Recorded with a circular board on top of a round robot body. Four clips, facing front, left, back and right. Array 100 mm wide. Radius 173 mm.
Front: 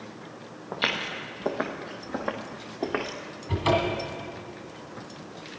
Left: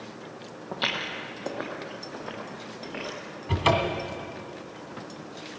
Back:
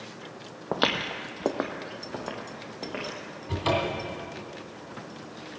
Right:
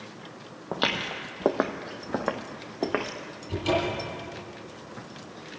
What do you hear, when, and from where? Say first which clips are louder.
0.7 s footsteps: right 3 dB, back 4 dB; 165° right, 0.8 m; by 3.1 s 70° right, 2.0 m
3.5 s a cupboard door: left 2 dB, front 3 dB; 90° left, 1.8 m